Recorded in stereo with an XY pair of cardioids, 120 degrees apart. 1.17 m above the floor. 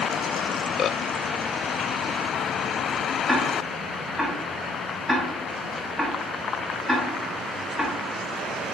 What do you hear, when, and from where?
3.3 s ticking: 5° right, 1.3 m